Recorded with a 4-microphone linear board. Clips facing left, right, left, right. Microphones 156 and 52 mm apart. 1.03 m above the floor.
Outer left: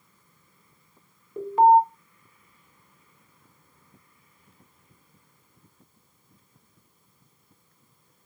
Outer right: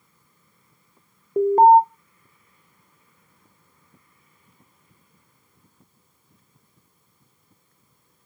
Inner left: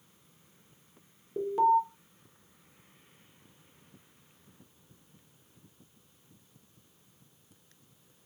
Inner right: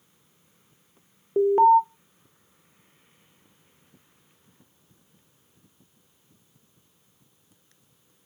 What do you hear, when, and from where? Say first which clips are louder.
1.4 s an alarm: outer right 4 dB, inner right 8 dB; 40° right (ahead or behind), 0.5 m